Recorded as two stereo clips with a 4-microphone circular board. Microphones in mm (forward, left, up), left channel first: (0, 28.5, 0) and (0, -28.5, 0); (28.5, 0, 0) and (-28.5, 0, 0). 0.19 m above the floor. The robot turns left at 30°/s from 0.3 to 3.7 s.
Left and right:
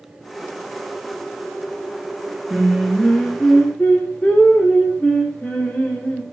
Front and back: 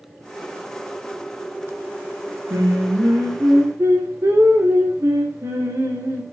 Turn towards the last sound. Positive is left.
turn(degrees=150)